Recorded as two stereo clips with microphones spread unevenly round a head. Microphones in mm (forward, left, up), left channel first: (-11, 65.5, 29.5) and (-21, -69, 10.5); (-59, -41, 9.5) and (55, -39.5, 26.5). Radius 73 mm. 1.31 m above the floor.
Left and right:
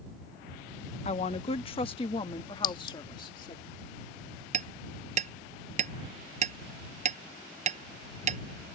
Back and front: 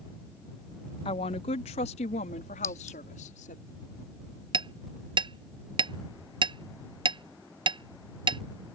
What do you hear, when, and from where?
1.1 s a woman speaking: 130° left; by 3.6 s 145° left
2.6 s a clink: 105° left
4.5 s hammering: 45° right